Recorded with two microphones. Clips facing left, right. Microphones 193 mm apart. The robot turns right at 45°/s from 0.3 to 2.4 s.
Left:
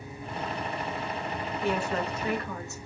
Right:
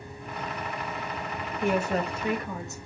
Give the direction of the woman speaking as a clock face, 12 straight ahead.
2 o'clock.